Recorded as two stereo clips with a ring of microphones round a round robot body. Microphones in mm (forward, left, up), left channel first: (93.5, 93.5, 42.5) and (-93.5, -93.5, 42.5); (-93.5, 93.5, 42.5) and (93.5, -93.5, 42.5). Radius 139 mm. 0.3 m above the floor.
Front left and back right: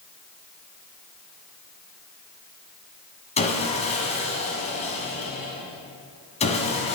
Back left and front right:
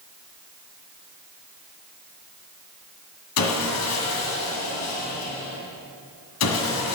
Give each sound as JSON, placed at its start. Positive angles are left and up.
{"t": 3.4, "sound": "sawing", "azimuth_deg": 110, "distance_m": 1.7}